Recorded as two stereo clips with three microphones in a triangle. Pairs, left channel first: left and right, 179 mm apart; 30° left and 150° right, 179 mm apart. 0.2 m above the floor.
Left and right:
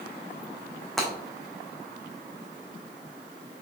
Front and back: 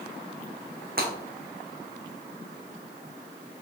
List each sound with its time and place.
1.0 s breaking glass: straight behind, 2.5 m